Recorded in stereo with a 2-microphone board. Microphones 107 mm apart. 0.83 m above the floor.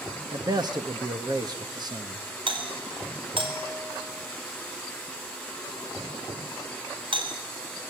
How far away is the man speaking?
About 1.1 m.